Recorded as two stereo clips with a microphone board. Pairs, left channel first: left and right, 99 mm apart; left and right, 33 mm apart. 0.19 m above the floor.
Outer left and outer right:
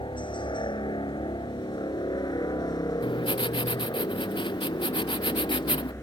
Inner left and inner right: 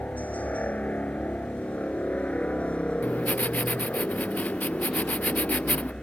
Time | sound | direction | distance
0.0 | a helicopter | 55° left (ahead or behind) | ?
3.0 | writing | 55° left (ahead or behind) | ?